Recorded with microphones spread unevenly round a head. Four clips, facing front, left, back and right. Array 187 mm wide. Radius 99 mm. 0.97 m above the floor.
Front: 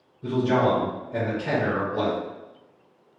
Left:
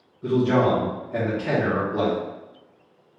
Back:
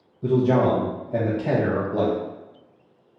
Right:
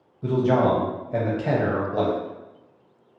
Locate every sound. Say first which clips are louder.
0.2 s a man speaking: even, back 3 dB; 155° right, 0.7 m